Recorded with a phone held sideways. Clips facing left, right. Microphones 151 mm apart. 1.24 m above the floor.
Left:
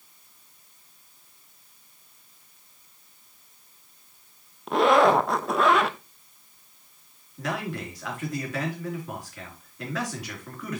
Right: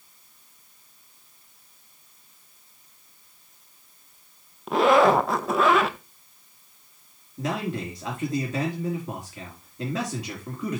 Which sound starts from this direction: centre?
A zipper, at 4.7 s.